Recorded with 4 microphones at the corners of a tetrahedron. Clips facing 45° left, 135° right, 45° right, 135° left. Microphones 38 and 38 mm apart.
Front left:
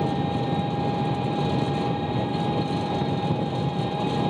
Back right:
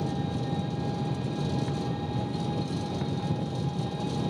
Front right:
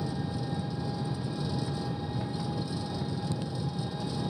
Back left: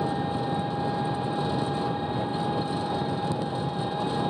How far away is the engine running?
About 0.9 m.